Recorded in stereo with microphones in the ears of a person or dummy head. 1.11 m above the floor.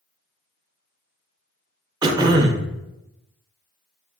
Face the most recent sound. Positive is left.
turn(degrees=-20)  # may be behind; listen again after turning